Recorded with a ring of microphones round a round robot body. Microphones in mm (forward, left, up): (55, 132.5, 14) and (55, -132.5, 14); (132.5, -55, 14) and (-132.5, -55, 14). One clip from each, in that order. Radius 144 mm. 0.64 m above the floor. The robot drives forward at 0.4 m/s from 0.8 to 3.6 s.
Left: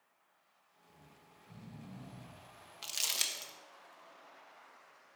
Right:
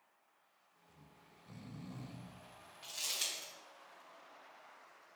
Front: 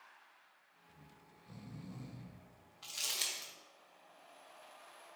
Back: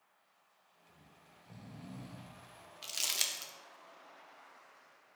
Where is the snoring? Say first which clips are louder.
Left 2 dB, back 1 dB; 60° right, 0.8 m; by 2.4 s 105° right, 0.7 m.